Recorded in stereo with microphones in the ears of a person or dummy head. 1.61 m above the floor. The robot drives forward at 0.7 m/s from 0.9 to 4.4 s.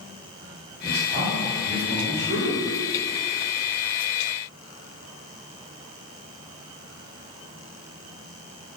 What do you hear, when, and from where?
0.8 s a man speaking: 45° right (ahead or behind), 2.5 m; by 2.7 s 70° right (ahead or behind), 1.8 m